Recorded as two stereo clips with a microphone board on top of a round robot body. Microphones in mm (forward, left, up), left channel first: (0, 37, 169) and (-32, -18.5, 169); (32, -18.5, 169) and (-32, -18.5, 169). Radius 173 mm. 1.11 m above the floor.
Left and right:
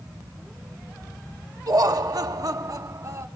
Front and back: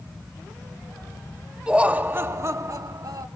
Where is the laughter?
105° right, 1.0 m; by 3.3 s 160° right, 1.3 m.